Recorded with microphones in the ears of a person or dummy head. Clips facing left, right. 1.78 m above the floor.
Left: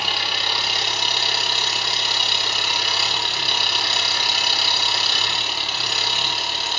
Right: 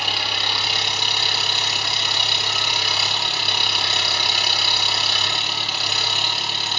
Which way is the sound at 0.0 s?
Centre (ahead or behind).